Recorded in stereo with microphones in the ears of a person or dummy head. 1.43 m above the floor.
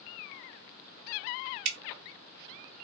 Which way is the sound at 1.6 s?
65° right (ahead or behind).